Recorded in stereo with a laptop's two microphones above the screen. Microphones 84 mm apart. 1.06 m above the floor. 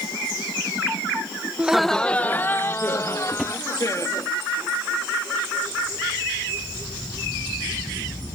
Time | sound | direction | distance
1.6 | laughter | 10° right (ahead or behind) | ?
3.3 | a drawer | 5° right (ahead or behind) | ?